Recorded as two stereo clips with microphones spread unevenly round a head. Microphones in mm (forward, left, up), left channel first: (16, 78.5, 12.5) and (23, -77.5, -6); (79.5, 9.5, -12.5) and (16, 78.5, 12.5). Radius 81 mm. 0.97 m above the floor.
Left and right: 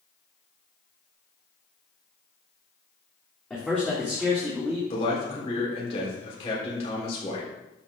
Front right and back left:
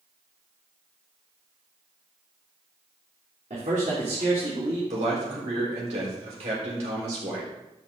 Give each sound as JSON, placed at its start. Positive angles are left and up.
{"t": 3.5, "sound": "a man speaking", "azimuth_deg": 175, "distance_m": 2.5}
{"t": 4.9, "sound": "a man speaking", "azimuth_deg": 150, "distance_m": 4.0}